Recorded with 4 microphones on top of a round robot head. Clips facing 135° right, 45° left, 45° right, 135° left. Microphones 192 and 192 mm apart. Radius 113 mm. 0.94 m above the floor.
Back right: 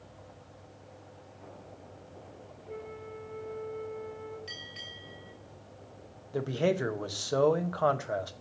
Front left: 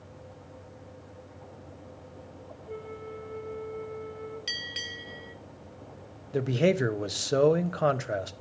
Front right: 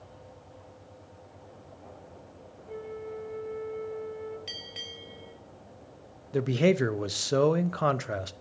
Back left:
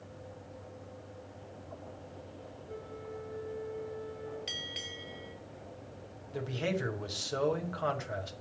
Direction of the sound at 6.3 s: 20° right.